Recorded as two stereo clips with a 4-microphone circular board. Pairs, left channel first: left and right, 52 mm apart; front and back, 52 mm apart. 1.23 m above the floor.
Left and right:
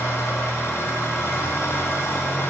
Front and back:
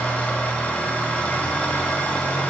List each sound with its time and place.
0.0 s an engine running: 65° left, 3 m